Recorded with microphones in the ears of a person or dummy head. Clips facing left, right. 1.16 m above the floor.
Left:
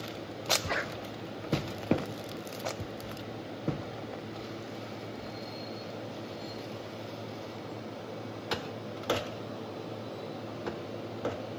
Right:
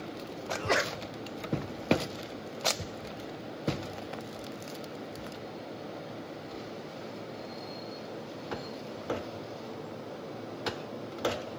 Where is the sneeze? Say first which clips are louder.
Right 4 dB; 55° right (ahead or behind), 0.5 m.